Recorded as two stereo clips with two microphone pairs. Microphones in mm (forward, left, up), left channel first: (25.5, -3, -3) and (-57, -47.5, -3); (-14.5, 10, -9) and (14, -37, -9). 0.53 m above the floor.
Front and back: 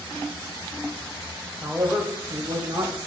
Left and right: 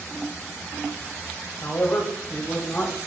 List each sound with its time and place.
1.6 s a man speaking: 140° left, 2.5 m; by 3.0 s 170° left, 2.5 m